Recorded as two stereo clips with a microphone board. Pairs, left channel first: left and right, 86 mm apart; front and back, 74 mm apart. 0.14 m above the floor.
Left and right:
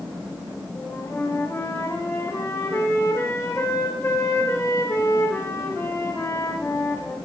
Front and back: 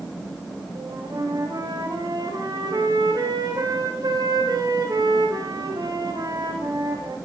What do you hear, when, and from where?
0.8 s a flute: 150° left, 7 m